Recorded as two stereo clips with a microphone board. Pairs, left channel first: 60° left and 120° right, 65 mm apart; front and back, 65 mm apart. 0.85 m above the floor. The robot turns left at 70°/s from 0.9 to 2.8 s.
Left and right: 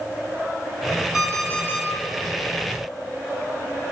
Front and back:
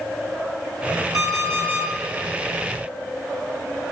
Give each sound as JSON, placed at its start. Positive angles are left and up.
{"t": 1.1, "sound": "an alarm clock", "azimuth_deg": 160, "distance_m": 1.7}